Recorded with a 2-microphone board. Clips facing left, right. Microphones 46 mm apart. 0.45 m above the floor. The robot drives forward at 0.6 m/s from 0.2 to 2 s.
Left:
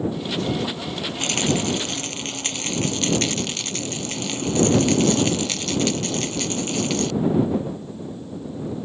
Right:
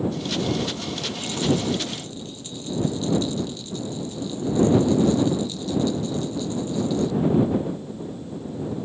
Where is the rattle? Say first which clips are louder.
Left 1 dB; 75° left (ahead or behind); by 7.1 s 80° left.